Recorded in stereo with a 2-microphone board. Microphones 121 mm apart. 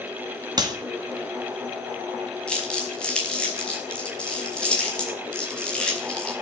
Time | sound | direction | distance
0.6 | a clap | 35° right (ahead or behind) | 2 m
2.5 | crumpling | 10° left (ahead or behind) | 5 m